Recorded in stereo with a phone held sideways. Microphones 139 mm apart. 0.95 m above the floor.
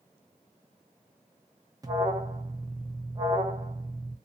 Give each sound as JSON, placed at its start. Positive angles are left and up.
{"t": 1.8, "sound": "an alarm", "side_deg": -25, "distance_m": 0.6}